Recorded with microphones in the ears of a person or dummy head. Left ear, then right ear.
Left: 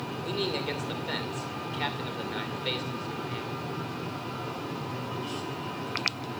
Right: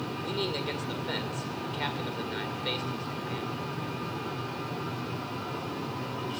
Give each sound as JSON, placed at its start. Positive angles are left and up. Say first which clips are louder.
{"t": 0.2, "sound": "a man speaking", "louder": "left 2 dB", "side_deg": 10, "distance_m": 2.5}